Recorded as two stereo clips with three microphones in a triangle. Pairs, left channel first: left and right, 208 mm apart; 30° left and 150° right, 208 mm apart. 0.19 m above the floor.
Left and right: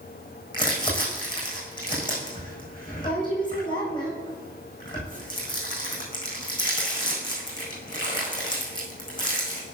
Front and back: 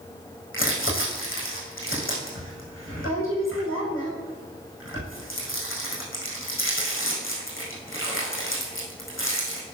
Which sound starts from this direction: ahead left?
Crumpling, at 0.5 s.